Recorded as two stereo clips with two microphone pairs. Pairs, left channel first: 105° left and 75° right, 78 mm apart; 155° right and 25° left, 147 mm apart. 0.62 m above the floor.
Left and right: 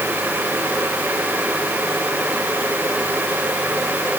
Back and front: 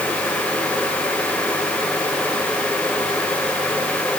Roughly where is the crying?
I don't hear crying.